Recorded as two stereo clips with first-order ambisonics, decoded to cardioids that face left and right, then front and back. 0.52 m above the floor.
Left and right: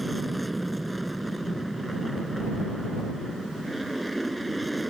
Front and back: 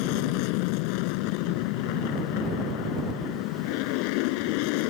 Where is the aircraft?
5° right.